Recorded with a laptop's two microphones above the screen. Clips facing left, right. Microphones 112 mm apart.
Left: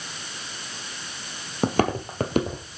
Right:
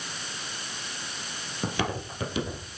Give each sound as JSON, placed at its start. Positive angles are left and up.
{"t": 1.6, "sound": "footsteps", "side_deg": 45, "distance_m": 1.3}